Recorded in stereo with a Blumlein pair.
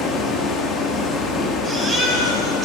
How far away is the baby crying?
About 5.5 m.